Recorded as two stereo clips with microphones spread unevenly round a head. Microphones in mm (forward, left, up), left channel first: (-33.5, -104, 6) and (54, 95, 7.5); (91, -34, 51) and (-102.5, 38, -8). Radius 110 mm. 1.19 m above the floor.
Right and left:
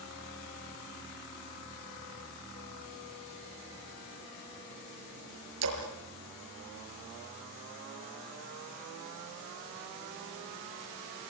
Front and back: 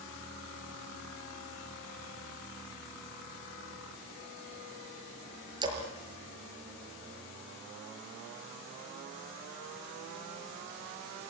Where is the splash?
85° left, 5.5 m.